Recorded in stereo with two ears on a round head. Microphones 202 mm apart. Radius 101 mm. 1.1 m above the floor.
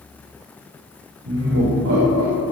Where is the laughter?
80° right, 3.5 m; by 2.4 s 70° right (ahead or behind), 4 m.